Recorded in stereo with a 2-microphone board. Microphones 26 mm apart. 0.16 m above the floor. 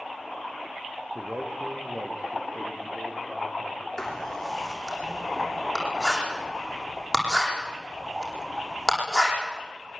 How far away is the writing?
About 8.5 m.